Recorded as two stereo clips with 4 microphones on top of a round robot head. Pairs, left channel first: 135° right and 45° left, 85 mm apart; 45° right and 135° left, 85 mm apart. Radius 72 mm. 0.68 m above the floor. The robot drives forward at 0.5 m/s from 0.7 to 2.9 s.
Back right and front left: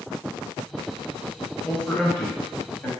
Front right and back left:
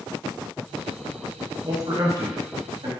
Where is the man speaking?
155° left, 1.2 m; by 2.9 s 165° left, 1.6 m.